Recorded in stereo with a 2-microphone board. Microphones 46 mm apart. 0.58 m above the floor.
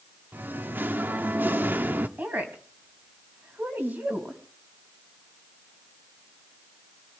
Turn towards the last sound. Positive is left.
turn(degrees=-45)  # may be behind; listen again after turning